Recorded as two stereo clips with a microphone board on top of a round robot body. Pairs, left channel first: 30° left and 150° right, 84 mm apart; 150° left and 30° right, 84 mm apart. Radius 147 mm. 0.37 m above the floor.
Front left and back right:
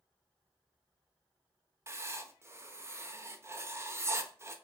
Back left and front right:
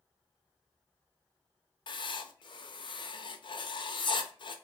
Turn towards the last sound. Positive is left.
turn(degrees=155)